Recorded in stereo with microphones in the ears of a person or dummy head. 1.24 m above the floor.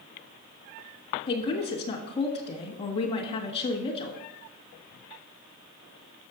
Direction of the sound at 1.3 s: 30° left (ahead or behind).